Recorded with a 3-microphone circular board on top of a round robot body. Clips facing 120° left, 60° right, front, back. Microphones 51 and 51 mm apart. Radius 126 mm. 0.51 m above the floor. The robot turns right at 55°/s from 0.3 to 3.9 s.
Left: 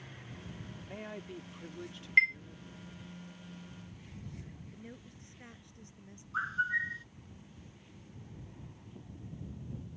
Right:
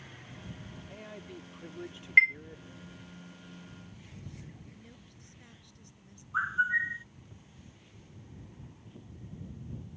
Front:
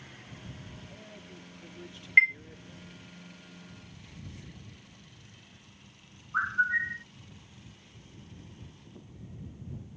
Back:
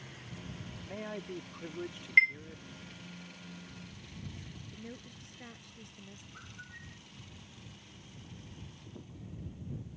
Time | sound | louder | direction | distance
0.8 | a man speaking | left 4 dB, back 8 dB | 175° left | ?
2.2 | a chime | right 4 dB, front 3 dB | 40° right | ?
4.7 | a woman speaking | left 4 dB, back 7 dB | straight behind | ?
6.3 | a bird | right 4 dB, front 26 dB | 15° left | ?